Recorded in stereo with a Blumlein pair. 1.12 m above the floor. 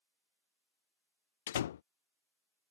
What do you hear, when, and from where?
1.5 s a door slam: 60° left